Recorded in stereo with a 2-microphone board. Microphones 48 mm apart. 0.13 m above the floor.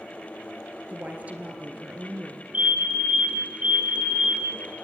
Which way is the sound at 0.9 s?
35° right (ahead or behind).